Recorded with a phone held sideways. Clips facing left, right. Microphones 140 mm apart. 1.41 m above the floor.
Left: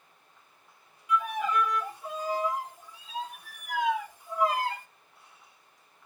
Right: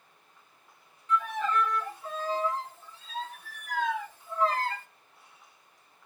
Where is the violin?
15° left (ahead or behind), 1.0 m.